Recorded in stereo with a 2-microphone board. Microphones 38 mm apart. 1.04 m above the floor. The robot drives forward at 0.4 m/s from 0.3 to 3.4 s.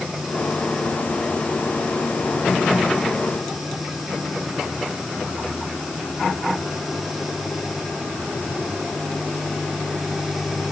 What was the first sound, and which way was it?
Only background noise.